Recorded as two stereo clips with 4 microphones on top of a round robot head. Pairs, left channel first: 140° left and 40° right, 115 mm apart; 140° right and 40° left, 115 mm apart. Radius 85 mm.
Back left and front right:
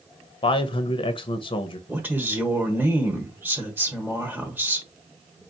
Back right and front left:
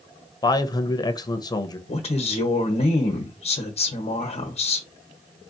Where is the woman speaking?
120° right, 1.1 m.